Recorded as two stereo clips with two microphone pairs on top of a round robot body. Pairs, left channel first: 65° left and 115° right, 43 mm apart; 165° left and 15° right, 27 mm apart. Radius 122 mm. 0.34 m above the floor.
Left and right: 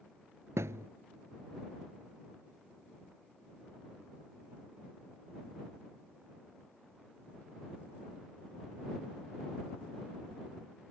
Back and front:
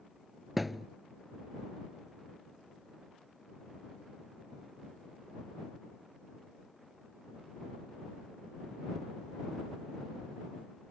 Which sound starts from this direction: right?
A thud, at 0.6 s.